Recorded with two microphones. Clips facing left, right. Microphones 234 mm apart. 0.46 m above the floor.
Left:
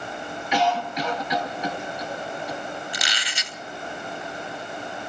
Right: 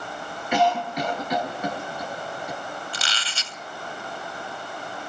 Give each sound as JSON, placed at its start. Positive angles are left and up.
{"t": 0.5, "sound": "a cough", "side_deg": -55, "distance_m": 3.5}
{"t": 2.9, "sound": "a squeak", "side_deg": 15, "distance_m": 0.8}